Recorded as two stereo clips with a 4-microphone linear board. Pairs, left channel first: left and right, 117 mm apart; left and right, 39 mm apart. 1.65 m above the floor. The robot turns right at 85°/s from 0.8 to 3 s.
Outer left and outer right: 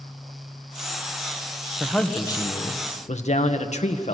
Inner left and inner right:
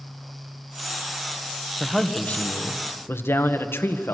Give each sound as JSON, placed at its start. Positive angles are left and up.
{"t": 1.8, "sound": "a man speaking", "azimuth_deg": -5, "distance_m": 1.9}